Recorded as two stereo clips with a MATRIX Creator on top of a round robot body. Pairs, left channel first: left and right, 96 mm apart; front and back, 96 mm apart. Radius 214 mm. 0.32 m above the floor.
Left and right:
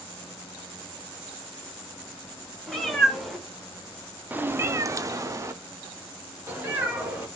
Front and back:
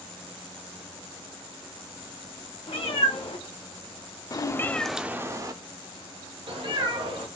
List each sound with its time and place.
2.7 s a cat meowing: 5° left, 1.3 m; by 7.3 s 160° right, 1.5 m